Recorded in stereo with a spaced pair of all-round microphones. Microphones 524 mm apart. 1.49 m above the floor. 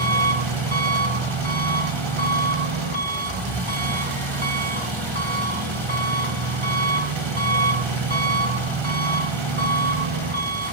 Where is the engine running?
60° right (ahead or behind), 2.5 m.